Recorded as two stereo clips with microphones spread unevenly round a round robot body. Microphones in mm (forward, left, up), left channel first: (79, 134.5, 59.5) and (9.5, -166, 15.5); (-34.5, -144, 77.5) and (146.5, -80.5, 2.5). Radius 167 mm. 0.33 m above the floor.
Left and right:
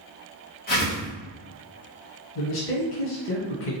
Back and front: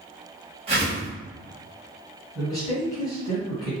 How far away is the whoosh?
About 1.7 m.